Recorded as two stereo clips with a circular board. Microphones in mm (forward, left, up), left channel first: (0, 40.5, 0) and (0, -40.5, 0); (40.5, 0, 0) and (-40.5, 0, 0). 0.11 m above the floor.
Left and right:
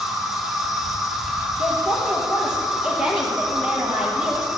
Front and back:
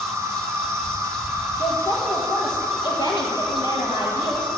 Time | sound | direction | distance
0.0 | an insect | straight behind | 1.5 m
1.6 | a woman speaking | 10° right | 3 m